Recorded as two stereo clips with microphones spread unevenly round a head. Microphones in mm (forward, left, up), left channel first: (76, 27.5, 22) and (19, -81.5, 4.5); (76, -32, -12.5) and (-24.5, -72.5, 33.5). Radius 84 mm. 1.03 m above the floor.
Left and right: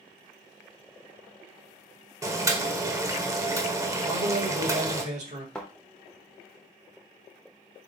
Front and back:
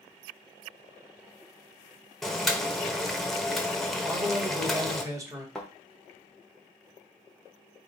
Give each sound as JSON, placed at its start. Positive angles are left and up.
{"t": 2.2, "sound": "boiling", "azimuth_deg": -55, "distance_m": 1.0}
{"t": 4.0, "sound": "a man speaking", "azimuth_deg": -95, "distance_m": 1.7}
{"t": 5.5, "sound": "a thud", "azimuth_deg": 135, "distance_m": 0.8}